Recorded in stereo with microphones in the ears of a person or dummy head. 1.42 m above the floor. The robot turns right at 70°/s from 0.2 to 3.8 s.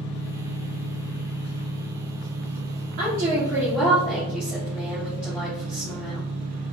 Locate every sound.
0.0 s an engine running: 60° left, 1.1 m; by 6.7 s 50° right, 1.1 m
3.0 s a woman speaking: 50° right, 1.6 m; by 6.2 s 5° left, 1.6 m